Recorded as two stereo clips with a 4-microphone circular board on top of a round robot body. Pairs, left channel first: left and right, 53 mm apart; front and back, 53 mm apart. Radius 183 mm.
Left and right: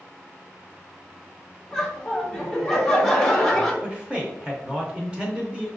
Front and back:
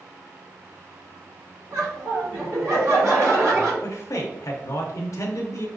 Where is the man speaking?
15° right, 0.6 m.